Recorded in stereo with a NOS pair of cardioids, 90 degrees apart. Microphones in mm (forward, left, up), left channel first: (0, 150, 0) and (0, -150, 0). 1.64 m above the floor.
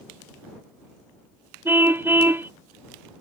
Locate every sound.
1.6 s a car horn: 5° right